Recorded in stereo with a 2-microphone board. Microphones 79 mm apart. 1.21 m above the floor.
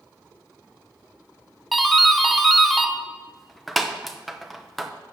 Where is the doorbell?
Centre (ahead or behind), 0.7 m.